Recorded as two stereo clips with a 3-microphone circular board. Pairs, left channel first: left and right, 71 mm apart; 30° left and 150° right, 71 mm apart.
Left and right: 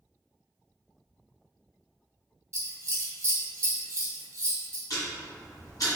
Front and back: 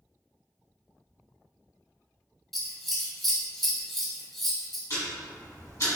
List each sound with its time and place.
2.5 s scissors: 55° right, 0.7 m
4.9 s ticking: 65° left, 1.3 m